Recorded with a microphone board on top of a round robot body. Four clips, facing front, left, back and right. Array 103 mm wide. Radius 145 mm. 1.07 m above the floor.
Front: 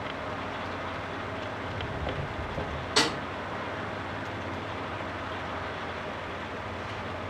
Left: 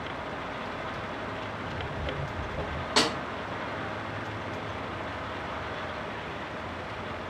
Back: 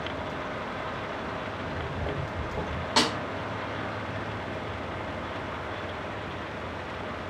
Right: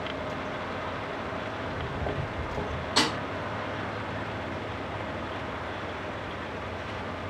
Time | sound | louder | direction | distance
1.6 | footsteps | right 2 dB, back 1 dB | 140° right | 2.5 m
3.0 | a snare drum | left 1 dB, back 2 dB | 145° left | 0.6 m